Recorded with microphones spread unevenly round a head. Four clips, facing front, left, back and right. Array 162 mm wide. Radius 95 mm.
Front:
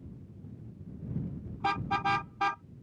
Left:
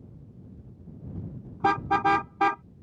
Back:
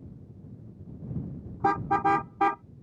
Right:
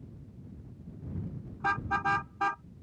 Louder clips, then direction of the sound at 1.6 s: Left 7 dB, back 6 dB; 135° left.